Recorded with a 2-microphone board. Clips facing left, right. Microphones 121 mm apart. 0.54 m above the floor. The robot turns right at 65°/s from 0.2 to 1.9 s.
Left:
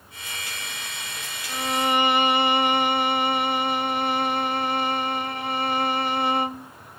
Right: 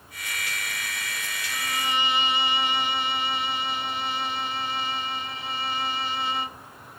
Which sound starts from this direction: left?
A violin, at 1.5 s.